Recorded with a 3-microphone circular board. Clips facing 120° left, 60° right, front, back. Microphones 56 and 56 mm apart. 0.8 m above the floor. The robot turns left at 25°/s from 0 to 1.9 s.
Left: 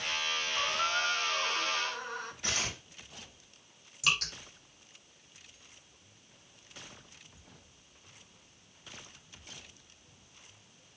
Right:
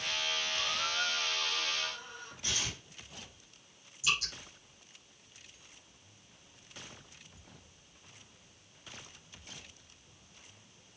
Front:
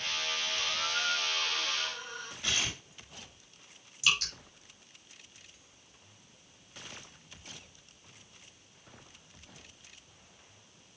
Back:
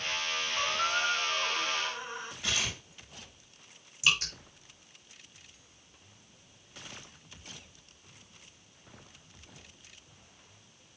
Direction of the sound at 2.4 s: 95° left.